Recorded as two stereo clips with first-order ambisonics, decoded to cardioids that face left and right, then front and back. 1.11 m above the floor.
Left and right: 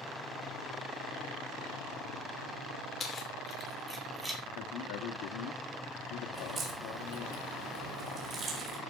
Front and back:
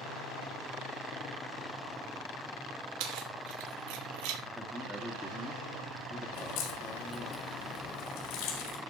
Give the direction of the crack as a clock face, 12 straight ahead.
1 o'clock.